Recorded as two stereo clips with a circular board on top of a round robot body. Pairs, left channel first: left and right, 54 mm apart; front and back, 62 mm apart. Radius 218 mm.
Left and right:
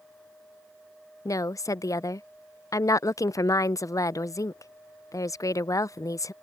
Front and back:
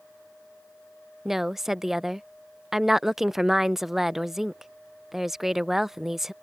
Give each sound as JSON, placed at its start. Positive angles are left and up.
{"t": 1.2, "sound": "a woman speaking", "azimuth_deg": 95}